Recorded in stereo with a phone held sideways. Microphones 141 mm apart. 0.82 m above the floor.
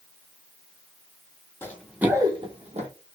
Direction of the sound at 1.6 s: 15° left (ahead or behind).